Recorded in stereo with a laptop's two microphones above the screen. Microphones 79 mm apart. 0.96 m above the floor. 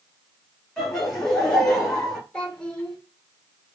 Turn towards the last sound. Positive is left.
turn(degrees=15)  # may be behind; listen again after turning